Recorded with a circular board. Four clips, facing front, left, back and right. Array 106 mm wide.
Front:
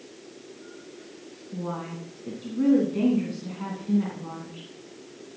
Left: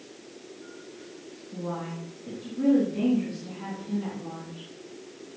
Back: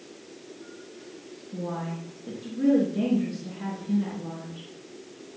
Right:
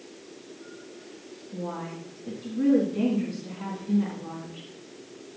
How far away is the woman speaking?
About 4 m.